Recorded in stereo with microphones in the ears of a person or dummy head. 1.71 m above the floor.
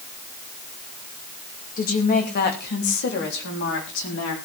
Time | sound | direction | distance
1.8 | a woman speaking | 40° left (ahead or behind) | 2.5 m